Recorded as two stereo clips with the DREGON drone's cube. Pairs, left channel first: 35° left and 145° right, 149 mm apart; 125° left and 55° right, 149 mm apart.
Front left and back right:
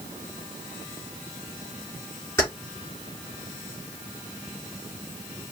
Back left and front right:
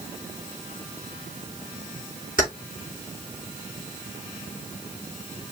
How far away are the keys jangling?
About 4.5 m.